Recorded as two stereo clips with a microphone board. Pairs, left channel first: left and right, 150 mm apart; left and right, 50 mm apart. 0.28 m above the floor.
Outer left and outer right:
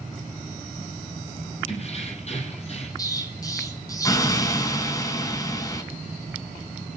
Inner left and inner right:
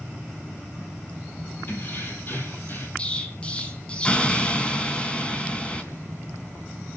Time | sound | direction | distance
1.7 | keys jangling | 45° left (ahead or behind) | 7.5 m
3.0 | an explosion | 25° left (ahead or behind) | 3 m